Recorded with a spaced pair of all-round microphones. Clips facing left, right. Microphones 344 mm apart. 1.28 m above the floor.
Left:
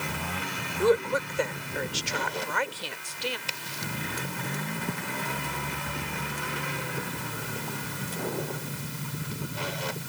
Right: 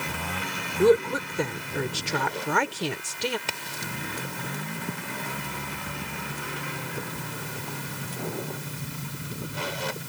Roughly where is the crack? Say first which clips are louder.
Right 1 dB; right.